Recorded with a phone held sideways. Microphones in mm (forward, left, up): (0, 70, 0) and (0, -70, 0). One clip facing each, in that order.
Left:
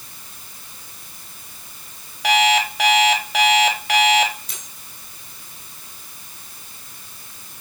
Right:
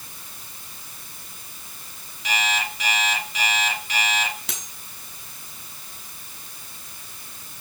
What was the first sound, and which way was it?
An alarm clock, 75° left (ahead or behind).